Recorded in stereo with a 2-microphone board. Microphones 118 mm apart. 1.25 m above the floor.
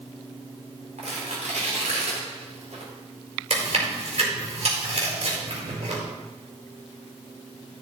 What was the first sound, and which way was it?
Tearing paper, 85° right.